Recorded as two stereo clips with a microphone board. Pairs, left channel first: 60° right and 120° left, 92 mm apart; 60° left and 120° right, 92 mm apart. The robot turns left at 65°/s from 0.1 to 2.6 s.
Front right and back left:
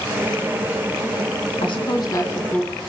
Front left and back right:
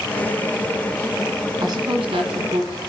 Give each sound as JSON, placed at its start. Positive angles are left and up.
{"t": 1.6, "sound": "a woman speaking", "azimuth_deg": -75, "distance_m": 1.7}